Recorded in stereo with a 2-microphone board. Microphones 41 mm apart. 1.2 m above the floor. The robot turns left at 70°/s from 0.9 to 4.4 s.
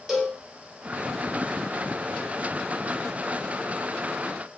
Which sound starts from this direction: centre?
A cowbell, at 0.1 s.